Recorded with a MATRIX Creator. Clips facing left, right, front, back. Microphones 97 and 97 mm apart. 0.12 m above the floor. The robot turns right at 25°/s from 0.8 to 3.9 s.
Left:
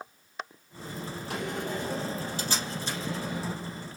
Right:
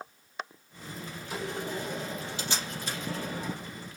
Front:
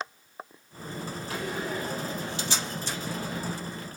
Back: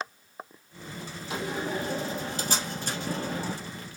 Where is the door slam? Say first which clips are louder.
Left 1 dB, back 2 dB; 110° left, 3 m; by 3.5 s 165° left, 3 m.